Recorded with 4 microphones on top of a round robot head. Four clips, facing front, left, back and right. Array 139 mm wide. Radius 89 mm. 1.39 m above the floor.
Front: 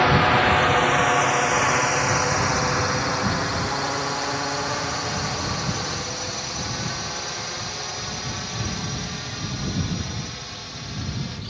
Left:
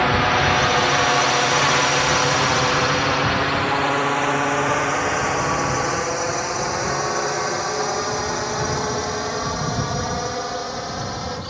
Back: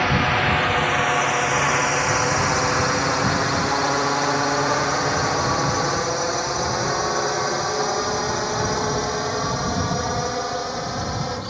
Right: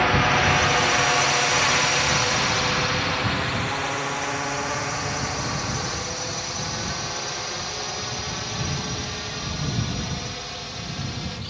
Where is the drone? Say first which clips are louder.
Left 2 dB, front 3 dB; 35° left; by 11.5 s 140° left.